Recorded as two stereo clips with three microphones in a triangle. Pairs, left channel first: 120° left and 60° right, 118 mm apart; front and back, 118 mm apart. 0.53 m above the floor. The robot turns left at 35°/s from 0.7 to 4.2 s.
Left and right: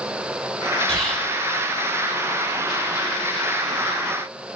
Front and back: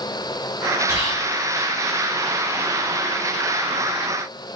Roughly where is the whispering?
Ahead left.